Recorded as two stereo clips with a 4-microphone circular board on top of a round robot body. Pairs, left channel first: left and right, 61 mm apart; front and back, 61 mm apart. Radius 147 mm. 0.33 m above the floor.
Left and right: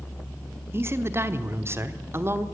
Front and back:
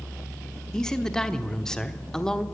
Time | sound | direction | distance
0.7 | a man speaking | 75° right | 1.3 m